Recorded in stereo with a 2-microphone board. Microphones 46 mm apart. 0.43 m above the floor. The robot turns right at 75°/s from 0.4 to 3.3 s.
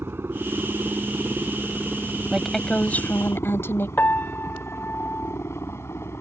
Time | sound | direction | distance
0.0 | a helicopter | 55° right (ahead or behind) | ?
2.3 | a woman speaking | 10° right | ?
4.0 | a piano | 45° left (ahead or behind) | ?